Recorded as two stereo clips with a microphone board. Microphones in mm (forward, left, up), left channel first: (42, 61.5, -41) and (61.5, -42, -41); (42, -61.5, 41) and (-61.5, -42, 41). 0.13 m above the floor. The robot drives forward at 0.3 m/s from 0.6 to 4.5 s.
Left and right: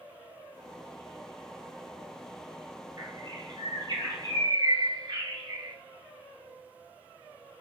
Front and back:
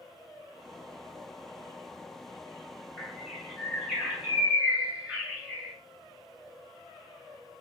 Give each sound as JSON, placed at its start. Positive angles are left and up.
{"t": 3.0, "sound": "a bird", "azimuth_deg": -100, "distance_m": 2.0}